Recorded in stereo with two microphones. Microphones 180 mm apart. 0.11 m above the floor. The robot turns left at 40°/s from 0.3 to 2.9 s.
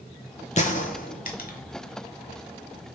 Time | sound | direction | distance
0.6 | a gunshot | 40° left (ahead or behind) | 0.6 m